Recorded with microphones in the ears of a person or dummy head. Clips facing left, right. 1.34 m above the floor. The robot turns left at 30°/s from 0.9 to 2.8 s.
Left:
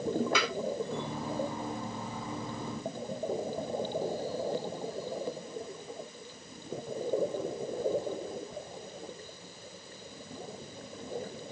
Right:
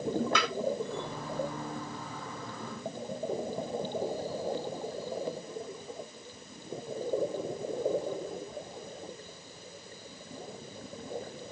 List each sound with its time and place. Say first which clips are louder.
0.3 s tapping: even; 10° left (ahead or behind), 2.5 m